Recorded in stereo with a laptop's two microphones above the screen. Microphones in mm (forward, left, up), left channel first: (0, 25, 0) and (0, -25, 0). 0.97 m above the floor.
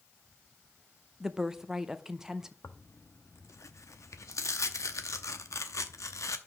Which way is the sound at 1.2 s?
10° right (ahead or behind).